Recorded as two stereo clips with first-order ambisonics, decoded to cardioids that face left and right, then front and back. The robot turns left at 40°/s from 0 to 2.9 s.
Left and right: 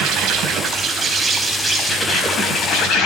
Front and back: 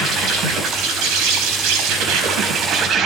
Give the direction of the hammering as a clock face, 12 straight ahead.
No hammering in this recording.